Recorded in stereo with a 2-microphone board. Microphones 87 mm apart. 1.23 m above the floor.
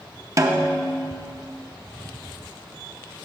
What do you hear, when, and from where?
0.4 s a snare drum: 35° right (ahead or behind), 0.6 m